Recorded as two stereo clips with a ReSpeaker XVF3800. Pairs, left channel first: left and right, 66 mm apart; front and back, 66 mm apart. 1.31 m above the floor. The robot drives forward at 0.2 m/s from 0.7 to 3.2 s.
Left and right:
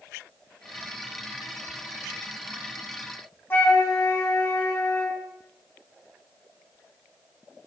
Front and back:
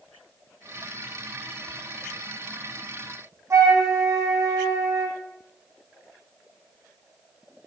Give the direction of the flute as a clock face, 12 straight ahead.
7 o'clock.